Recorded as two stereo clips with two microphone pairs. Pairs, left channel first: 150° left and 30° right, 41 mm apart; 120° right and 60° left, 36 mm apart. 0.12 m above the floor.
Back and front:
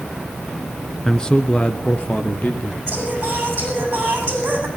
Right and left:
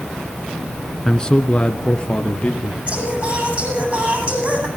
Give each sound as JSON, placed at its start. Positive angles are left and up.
{"t": 1.1, "sound": "a man speaking", "azimuth_deg": -160, "distance_m": 1.1}
{"t": 2.9, "sound": "singing", "azimuth_deg": 10, "distance_m": 8.5}